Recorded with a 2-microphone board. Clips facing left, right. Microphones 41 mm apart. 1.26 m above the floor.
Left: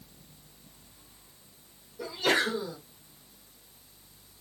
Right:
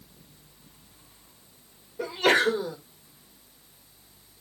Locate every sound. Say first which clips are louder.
2.0 s a sneeze: right 5 dB; 50° right (ahead or behind), 1.1 m